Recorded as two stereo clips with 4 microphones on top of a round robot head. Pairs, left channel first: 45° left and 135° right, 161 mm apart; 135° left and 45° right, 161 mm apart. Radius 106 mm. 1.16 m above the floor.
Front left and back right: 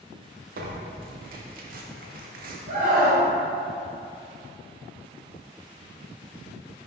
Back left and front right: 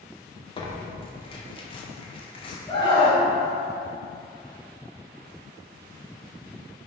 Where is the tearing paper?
165° right, 1.0 m.